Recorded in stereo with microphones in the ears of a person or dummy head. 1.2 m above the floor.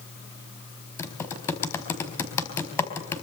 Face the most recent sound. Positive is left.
turn(degrees=10)  # may be behind; listen again after turning